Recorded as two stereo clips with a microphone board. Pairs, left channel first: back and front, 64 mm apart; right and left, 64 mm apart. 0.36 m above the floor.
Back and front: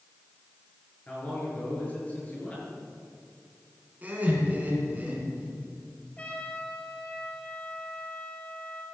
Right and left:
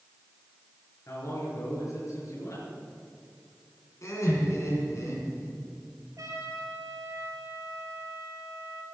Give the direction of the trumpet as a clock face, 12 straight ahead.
8 o'clock.